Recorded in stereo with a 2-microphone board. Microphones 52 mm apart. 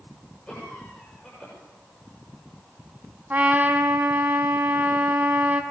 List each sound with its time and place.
0.5 s a cough: 15° left (ahead or behind), 7.5 m
3.3 s a trumpet: 35° right (ahead or behind), 2.5 m